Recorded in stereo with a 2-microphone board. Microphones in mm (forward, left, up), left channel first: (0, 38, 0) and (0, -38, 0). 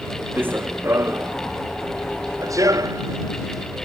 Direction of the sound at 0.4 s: 25° right (ahead or behind).